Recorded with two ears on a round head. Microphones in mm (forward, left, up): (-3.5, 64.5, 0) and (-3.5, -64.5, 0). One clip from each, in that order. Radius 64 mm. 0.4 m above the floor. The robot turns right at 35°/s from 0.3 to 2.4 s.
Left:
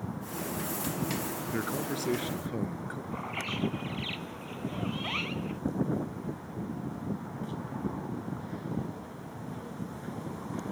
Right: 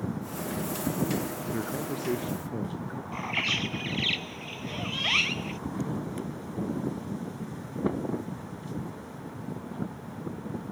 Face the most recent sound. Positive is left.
turn(degrees=-85)